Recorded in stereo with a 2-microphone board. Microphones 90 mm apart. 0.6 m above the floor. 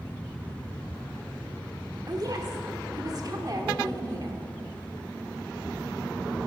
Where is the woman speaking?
45° right (ahead or behind), 1.5 m.